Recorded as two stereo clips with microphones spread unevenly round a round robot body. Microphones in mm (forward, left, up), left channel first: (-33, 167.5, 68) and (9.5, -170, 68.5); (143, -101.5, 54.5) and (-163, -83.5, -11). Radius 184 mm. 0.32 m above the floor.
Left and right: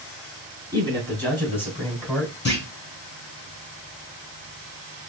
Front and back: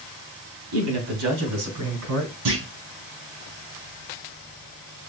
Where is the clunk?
155° left, 3 m.